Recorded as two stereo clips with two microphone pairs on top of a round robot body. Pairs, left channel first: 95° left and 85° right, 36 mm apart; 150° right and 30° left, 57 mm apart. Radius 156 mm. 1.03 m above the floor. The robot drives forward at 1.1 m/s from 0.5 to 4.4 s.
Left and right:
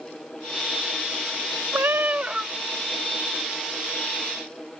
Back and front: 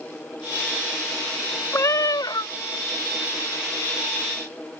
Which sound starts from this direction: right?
A cat meowing, at 1.7 s.